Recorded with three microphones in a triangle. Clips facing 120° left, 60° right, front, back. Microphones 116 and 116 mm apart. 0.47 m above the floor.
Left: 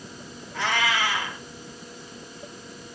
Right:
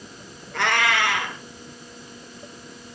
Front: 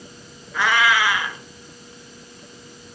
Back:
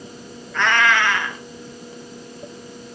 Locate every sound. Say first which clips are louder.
0.5 s a cat meowing: right 3 dB, back 1 dB; 80° right, 4 m